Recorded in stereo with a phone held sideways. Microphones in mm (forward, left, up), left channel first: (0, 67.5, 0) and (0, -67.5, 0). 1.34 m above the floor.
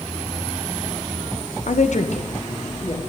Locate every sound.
1.7 s a woman speaking: 65° left (ahead or behind), 0.8 m; by 3.0 s 50° left (ahead or behind), 2.5 m